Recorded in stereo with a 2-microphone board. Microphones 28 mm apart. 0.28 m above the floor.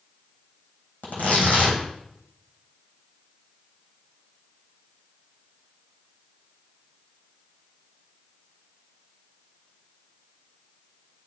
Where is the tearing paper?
90° left, 3.5 m.